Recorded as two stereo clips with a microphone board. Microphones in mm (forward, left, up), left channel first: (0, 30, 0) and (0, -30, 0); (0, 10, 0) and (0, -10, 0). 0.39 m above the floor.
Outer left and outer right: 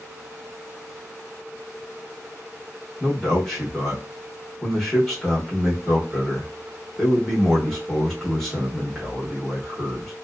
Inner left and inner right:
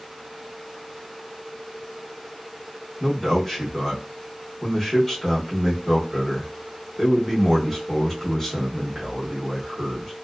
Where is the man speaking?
5° left (ahead or behind), 1.0 m.